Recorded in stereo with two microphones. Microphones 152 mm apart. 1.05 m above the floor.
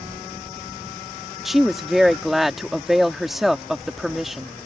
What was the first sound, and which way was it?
A woman speaking, centre (ahead or behind).